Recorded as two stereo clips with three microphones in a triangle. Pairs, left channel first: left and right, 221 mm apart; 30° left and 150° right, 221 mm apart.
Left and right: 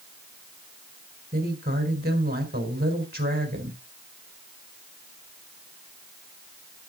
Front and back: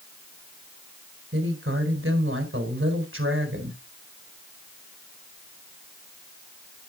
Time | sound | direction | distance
1.3 | a woman speaking | 130° right | 4 m